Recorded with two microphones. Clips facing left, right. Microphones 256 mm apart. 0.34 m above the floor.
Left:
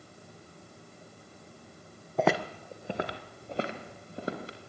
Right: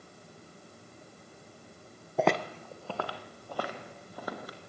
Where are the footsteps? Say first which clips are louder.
Left 1 dB; 5° right (ahead or behind), 0.8 m; by 4.6 s 25° left (ahead or behind), 4 m.